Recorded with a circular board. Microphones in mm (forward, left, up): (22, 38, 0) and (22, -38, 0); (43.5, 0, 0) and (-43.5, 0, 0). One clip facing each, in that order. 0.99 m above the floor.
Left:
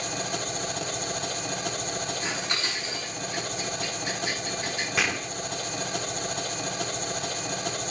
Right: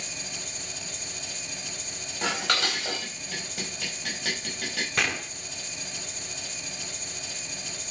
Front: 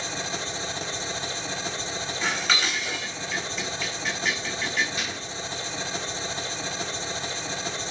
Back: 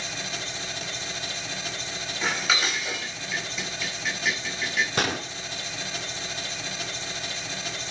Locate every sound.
0.0 s an engine running: 60° left, 2.5 m
2.2 s dishes clattering: 90° right, 4 m
5.0 s a gunshot: 175° left, 0.9 m